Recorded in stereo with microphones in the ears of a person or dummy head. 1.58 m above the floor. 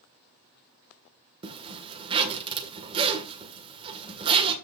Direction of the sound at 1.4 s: 30° right (ahead or behind).